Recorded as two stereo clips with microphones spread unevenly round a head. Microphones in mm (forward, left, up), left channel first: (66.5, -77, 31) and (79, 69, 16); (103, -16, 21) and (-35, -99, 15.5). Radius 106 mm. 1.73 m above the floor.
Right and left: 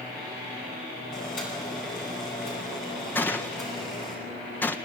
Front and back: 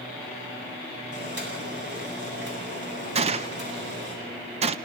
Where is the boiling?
150° right, 8.5 m.